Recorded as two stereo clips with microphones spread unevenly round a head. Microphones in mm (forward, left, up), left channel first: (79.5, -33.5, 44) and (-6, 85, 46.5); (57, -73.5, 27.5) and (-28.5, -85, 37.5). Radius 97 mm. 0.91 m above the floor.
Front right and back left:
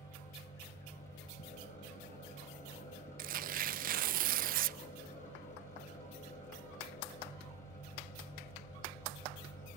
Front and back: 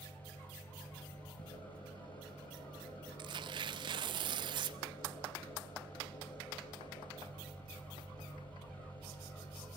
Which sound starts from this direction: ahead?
An engine running, at 0.0 s.